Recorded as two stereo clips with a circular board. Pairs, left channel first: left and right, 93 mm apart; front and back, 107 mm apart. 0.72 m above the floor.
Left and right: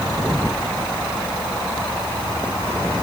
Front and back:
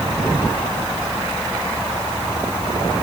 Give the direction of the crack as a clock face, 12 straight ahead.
No crack in this recording.